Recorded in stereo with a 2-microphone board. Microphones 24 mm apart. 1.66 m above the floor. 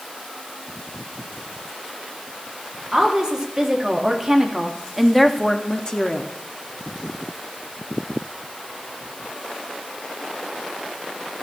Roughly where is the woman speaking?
Right.